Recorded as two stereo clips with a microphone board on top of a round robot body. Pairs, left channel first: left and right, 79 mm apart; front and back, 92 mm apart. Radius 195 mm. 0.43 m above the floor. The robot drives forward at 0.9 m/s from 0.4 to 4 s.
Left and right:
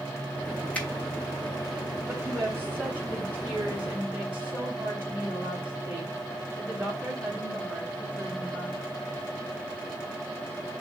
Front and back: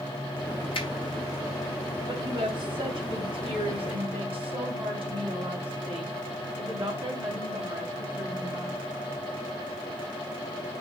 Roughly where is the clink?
No clink in this recording.